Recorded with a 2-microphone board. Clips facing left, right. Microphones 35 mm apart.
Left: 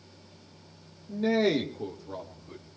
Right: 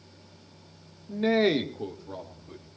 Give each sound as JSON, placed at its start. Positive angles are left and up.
{"t": 1.1, "sound": "a man speaking", "side_deg": -50, "distance_m": 1.5}